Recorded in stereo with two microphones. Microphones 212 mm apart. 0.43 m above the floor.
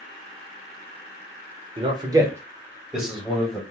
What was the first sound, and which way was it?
A man speaking, 25° right (ahead or behind).